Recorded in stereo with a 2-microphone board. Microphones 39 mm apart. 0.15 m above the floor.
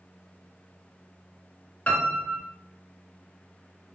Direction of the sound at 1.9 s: 35° left (ahead or behind).